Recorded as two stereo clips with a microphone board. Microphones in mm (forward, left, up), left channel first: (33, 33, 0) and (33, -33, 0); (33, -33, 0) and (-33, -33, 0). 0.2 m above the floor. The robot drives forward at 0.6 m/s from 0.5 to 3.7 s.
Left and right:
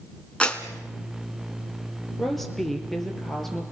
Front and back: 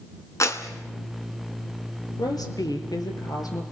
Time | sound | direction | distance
0.4 | a clap | 20° left | 2.5 m
2.2 | a woman speaking | 5° left | 5 m